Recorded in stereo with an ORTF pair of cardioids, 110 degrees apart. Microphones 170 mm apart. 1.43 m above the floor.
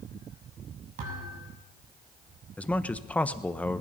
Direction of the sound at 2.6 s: 10° left.